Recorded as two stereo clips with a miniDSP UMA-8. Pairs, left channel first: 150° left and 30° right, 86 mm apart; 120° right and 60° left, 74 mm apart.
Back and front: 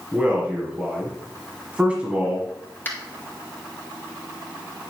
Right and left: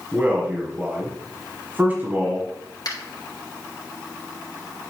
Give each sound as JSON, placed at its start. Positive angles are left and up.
{"t": 0.1, "sound": "a man speaking", "azimuth_deg": 30, "distance_m": 1.5}
{"t": 2.9, "sound": "a finger snap", "azimuth_deg": -145, "distance_m": 2.0}